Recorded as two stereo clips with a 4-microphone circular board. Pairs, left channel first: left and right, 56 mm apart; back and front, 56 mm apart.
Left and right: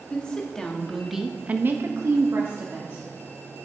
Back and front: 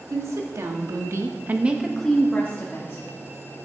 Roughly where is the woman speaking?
Ahead.